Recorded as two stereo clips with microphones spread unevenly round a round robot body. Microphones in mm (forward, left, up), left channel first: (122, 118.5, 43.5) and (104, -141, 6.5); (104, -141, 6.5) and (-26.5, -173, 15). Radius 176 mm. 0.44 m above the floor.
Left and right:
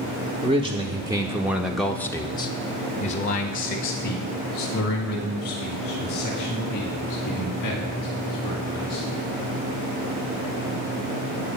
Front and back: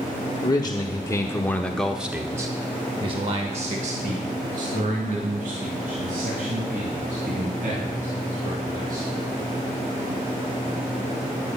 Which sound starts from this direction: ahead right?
A man speaking, at 0.4 s.